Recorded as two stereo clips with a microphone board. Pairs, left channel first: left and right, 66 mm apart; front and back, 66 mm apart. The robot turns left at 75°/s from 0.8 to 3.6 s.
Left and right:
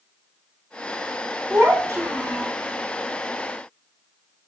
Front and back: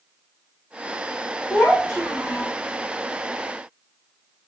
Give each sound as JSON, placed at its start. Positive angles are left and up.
{"t": 1.5, "sound": "a child speaking", "azimuth_deg": -35, "distance_m": 1.0}